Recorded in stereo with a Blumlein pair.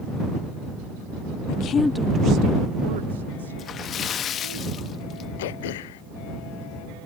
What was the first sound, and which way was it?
A woman speaking, 45° left.